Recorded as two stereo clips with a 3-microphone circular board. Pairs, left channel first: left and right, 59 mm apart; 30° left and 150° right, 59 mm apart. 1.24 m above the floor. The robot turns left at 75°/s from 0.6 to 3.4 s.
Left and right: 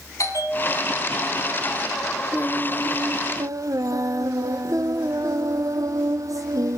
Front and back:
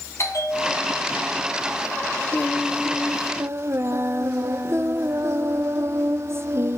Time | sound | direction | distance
0.2 | a bell | 65° left | 2.5 m
2.3 | singing | 25° right | 0.6 m